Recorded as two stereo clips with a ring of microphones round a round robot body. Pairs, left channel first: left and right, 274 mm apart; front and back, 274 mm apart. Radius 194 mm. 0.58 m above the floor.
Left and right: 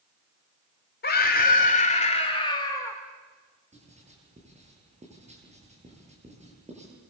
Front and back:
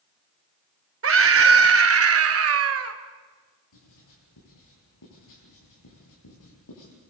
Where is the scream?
150° left, 2.5 m; by 3.0 s 170° left, 2 m.